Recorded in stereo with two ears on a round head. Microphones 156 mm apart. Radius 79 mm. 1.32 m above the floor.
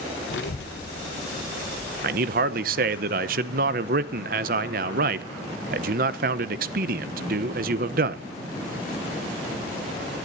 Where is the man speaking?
55° right (ahead or behind), 0.8 m.